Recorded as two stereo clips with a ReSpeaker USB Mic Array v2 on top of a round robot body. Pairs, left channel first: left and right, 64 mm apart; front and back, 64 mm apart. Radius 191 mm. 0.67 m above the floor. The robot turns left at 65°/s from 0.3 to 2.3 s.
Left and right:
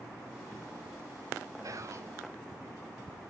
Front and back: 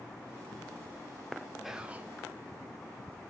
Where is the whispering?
95° right, 0.7 m; by 2.1 s 125° right, 0.7 m.